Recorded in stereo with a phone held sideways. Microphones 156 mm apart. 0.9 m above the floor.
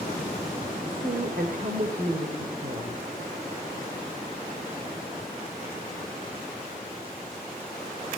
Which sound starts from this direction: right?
A woman speaking, at 0.9 s.